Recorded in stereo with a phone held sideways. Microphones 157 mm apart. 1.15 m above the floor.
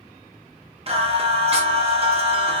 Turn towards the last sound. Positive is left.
turn(degrees=-40)  # may be behind; listen again after turning